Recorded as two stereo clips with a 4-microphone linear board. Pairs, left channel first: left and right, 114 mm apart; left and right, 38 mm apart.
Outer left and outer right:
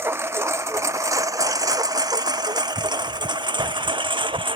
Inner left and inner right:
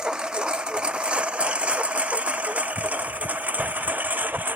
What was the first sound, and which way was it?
A lawn mower, 20° right (ahead or behind).